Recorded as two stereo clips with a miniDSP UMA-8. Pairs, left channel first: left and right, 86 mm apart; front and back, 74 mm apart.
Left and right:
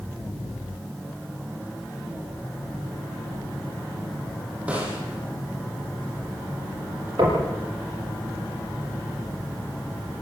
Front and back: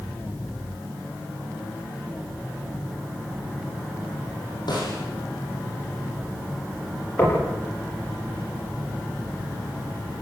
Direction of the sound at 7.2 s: 60° right.